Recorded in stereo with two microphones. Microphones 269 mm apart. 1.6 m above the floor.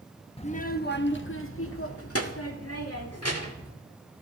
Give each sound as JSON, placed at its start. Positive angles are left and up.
{"t": 0.4, "sound": "a child speaking", "side_deg": 20, "distance_m": 0.9}